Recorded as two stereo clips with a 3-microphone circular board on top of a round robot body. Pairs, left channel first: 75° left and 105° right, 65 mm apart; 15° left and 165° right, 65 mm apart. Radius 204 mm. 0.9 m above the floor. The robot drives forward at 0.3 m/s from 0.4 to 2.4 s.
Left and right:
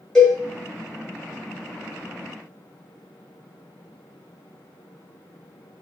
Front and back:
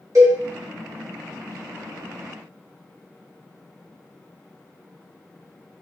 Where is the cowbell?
155° left, 1.1 m.